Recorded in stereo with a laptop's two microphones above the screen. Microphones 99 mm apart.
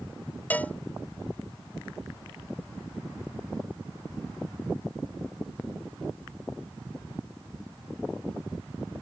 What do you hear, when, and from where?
0.5 s a cowbell: 15° left (ahead or behind)